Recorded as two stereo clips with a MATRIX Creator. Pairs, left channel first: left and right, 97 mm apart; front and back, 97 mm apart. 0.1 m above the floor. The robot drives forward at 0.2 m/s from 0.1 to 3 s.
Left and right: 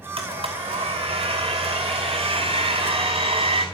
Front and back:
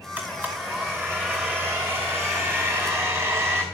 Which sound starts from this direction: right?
A blender, at 0.2 s.